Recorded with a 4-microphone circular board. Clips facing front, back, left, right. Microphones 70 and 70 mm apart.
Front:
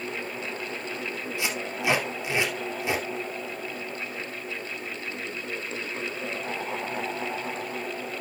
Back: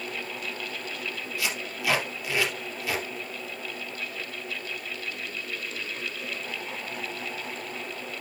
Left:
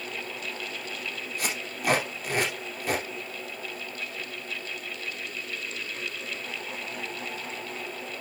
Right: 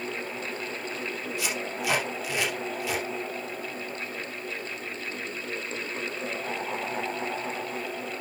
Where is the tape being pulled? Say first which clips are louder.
Front 2 dB, even; 60° left, 3 m.